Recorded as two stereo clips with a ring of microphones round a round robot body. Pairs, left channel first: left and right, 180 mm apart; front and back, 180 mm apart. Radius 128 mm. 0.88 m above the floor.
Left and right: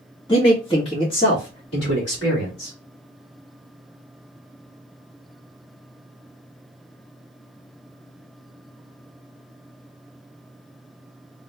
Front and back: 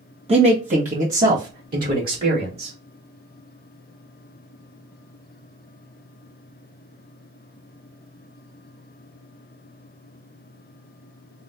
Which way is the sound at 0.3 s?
145° left.